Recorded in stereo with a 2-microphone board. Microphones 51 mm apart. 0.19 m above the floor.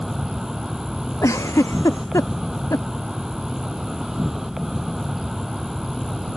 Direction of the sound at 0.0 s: 5° right (ahead or behind).